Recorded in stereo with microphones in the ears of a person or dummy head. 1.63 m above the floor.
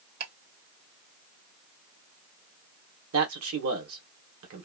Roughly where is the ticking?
Right.